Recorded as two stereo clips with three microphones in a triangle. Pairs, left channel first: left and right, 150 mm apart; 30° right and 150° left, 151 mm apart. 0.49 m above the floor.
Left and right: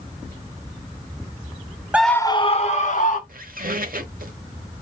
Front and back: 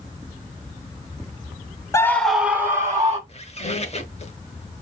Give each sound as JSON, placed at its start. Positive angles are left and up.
{"t": 1.9, "sound": "a scream", "azimuth_deg": -30, "distance_m": 0.7}
{"t": 3.3, "sound": "a squeak", "azimuth_deg": -75, "distance_m": 1.1}